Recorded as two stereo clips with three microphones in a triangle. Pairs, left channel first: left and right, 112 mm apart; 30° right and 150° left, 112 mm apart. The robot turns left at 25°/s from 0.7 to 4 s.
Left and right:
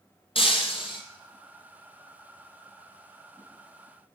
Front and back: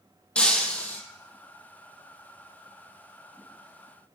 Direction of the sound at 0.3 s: 50° left.